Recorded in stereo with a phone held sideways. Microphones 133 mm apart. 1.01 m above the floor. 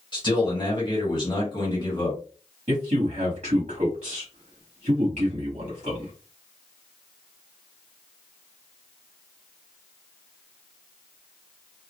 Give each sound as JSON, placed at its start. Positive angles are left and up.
{"t": 0.1, "sound": "a man speaking", "side_deg": 35, "distance_m": 1.5}
{"t": 2.7, "sound": "a man speaking", "side_deg": -55, "distance_m": 1.1}